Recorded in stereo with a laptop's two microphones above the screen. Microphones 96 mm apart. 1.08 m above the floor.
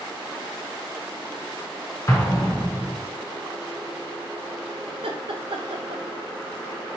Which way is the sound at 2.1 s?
30° left (ahead or behind).